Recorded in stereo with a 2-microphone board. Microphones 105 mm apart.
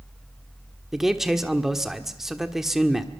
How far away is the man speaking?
About 1.4 m.